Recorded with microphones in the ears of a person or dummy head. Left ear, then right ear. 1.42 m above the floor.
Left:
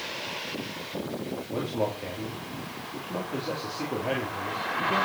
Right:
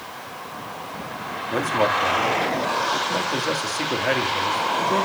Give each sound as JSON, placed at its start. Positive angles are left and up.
{"t": 1.5, "sound": "a man speaking", "side_deg": -55, "distance_m": 3.5}